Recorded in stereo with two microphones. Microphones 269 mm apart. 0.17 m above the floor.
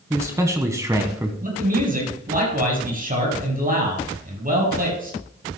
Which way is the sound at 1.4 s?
30° right (ahead or behind).